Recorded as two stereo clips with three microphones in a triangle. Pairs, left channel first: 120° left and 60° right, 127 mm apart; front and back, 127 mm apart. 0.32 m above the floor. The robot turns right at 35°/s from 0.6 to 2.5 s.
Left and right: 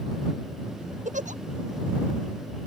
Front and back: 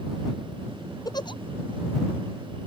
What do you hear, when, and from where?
1.1 s a giggle: 60° right; by 1.4 s 50° right